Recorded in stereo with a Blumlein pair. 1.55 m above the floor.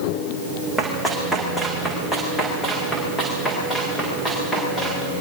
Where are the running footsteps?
Straight ahead, 5 m; by 5.0 s 10° left, 11 m.